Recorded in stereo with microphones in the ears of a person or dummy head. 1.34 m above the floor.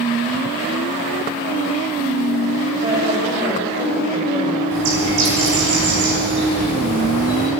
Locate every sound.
2.8 s a woman speaking: 20° right (ahead or behind), 6 m
4.7 s a bird: 70° right (ahead or behind), 6.5 m